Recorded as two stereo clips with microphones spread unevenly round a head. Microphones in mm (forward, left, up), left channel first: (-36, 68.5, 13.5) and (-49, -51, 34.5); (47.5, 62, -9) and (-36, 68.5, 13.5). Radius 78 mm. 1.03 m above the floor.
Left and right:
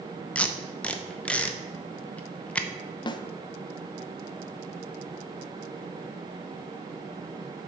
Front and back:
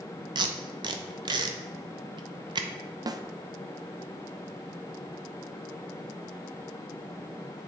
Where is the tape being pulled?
155° left, 0.8 m.